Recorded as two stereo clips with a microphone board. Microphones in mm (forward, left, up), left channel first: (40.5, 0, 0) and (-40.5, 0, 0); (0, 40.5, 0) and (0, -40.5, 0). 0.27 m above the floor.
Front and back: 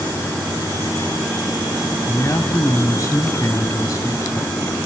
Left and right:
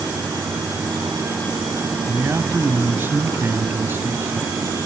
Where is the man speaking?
35° right, 1.4 m.